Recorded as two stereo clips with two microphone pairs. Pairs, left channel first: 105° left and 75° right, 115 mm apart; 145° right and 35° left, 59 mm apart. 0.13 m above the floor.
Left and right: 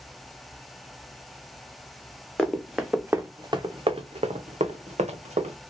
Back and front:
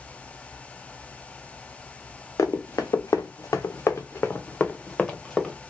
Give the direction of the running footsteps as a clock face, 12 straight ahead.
6 o'clock.